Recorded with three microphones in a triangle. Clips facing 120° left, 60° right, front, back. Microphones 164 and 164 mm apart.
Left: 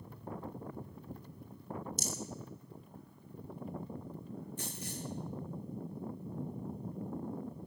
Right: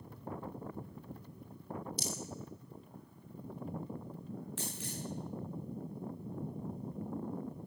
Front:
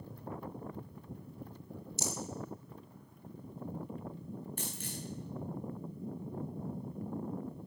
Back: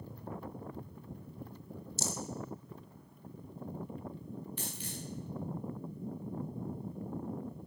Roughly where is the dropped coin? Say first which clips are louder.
Even, even; ahead right.